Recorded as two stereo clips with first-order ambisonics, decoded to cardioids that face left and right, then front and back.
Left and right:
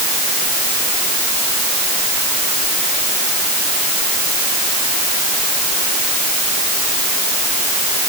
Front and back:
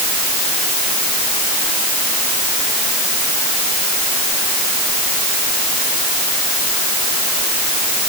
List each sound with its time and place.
Only background noise.